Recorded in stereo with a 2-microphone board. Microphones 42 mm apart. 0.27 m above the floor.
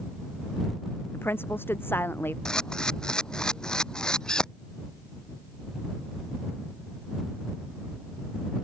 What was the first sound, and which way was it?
A woman speaking, 60° left (ahead or behind).